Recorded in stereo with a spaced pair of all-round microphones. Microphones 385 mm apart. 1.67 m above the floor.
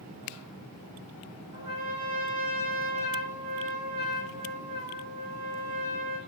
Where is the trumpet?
35° right (ahead or behind), 1.3 m.